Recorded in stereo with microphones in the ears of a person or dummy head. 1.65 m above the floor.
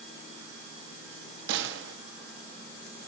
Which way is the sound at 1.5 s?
70° right (ahead or behind).